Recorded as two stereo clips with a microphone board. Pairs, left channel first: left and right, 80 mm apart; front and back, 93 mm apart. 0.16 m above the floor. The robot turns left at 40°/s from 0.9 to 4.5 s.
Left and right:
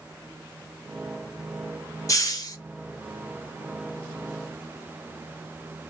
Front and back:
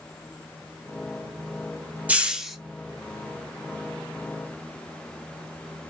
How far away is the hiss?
About 0.6 m.